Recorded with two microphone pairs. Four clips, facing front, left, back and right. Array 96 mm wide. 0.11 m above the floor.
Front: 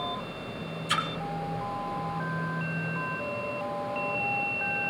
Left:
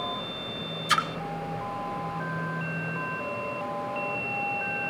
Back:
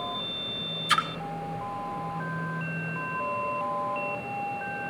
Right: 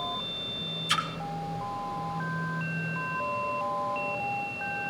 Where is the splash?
140° left, 0.9 m.